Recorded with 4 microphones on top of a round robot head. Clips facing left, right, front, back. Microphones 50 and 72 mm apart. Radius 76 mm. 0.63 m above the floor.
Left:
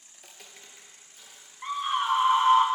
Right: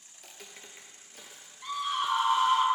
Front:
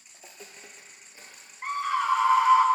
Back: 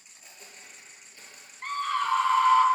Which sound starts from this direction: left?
A scream, at 1.6 s.